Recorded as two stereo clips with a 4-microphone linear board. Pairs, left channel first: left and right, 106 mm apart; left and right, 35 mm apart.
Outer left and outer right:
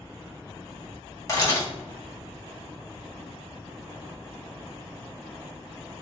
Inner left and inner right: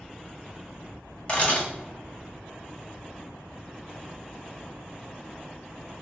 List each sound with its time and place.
1.3 s a camera shutter: 30° left (ahead or behind), 1.6 m